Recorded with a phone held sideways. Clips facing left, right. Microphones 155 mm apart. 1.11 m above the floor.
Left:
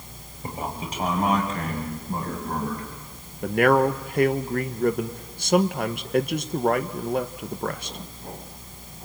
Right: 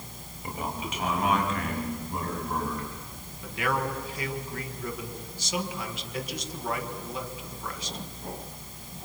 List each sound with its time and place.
0.4 s a man speaking: 35° left (ahead or behind), 6 m
3.4 s a man speaking: 60° left (ahead or behind), 1.2 m